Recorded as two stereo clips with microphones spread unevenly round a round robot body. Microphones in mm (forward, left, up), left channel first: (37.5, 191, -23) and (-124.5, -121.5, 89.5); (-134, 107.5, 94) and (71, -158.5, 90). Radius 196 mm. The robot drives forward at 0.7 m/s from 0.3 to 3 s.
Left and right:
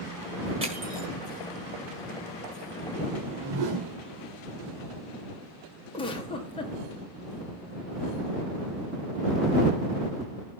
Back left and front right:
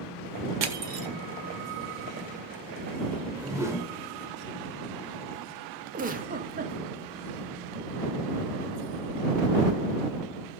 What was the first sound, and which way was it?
Crushing, 40° right.